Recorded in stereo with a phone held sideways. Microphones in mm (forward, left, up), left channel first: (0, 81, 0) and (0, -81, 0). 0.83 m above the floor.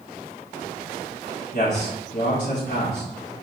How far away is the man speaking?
About 1.1 m.